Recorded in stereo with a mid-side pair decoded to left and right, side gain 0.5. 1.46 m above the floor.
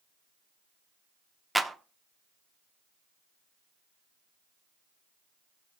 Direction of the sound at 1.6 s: 10° right.